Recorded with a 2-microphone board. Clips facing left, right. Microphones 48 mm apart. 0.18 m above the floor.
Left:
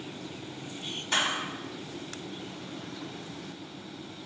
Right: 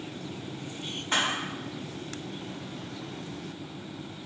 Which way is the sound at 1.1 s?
40° right (ahead or behind).